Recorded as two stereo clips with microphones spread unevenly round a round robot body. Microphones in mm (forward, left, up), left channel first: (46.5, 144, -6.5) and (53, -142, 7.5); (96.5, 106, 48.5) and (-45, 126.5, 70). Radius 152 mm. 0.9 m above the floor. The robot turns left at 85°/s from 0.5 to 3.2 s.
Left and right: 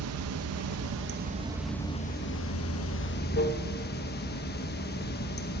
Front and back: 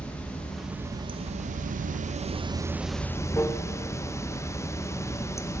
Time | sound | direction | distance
0.0 | running water | 80° right | 0.9 m